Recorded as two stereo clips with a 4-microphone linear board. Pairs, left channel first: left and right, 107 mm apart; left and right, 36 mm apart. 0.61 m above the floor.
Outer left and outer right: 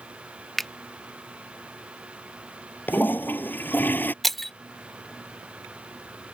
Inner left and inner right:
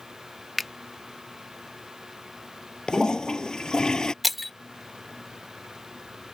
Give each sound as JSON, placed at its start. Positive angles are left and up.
{"t": 0.6, "sound": "a finger snap", "side_deg": 0}
{"t": 2.9, "sound": "a toilet flushing", "side_deg": 20}
{"t": 4.2, "sound": "breaking glass", "side_deg": 0}